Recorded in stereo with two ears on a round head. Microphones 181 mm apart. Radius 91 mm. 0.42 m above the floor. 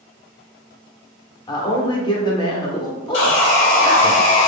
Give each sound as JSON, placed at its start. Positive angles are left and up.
{"t": 1.5, "sound": "a man speaking", "side_deg": 20, "distance_m": 0.8}
{"t": 3.1, "sound": "sawing", "side_deg": 60, "distance_m": 0.7}